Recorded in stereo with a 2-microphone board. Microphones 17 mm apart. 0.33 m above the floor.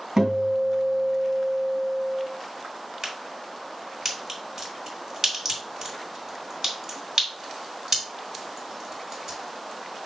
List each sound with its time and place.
0.2 s a guitar: 45° right (ahead or behind), 2.5 m
3.0 s a crack: 25° right (ahead or behind), 2 m